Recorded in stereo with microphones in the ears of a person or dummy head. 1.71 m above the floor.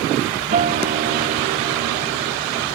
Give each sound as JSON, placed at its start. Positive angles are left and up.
{"t": 0.5, "sound": "a guitar", "side_deg": -40}